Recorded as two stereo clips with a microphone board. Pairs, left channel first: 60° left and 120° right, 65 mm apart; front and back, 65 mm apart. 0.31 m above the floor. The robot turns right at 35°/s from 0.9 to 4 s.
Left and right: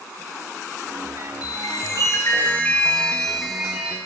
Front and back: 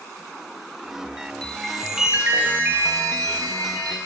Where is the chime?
80° left, 5 m; by 4.0 s 170° left, 5 m.